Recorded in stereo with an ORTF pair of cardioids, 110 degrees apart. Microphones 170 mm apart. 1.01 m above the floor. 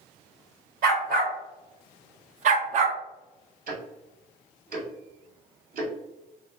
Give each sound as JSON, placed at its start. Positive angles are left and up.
{"t": 0.8, "sound": "a dog barking", "azimuth_deg": -65, "distance_m": 1.8}
{"t": 3.7, "sound": "ticking", "azimuth_deg": -55, "distance_m": 1.9}